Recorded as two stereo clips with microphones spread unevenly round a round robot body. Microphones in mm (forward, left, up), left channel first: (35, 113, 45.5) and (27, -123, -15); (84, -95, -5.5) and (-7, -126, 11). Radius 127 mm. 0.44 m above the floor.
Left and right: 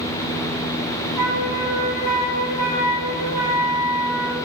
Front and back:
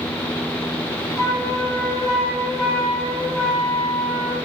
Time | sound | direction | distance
1.2 | a flute | 95° left | 8 m